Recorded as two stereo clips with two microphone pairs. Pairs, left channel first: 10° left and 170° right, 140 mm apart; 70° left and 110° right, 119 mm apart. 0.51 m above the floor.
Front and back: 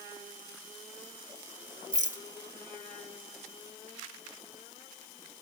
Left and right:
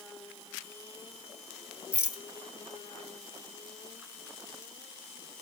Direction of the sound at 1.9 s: 175° left.